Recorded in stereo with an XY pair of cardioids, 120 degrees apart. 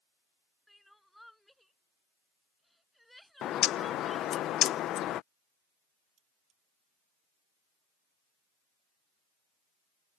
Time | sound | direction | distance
0.7 | crying | straight ahead | ?
3.4 | a bird | 65° left | ?
6.2 | cutlery clinking | 65° right | ?